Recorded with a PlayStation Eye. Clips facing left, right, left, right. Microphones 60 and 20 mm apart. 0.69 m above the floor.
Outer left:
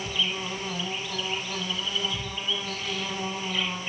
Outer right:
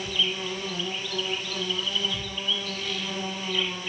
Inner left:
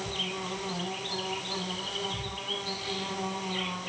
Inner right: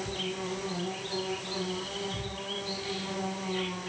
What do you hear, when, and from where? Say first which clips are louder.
0.0 s an insect: outer right 1 dB, inner left 1 dB; 20° left (ahead or behind), 6 m